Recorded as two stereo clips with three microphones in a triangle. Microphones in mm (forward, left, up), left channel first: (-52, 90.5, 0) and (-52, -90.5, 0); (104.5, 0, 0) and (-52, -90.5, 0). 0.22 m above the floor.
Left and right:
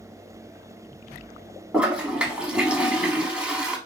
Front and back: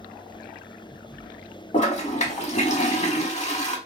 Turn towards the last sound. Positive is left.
turn(degrees=-10)